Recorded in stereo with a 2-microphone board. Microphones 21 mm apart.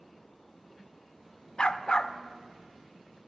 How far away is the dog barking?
About 0.9 m.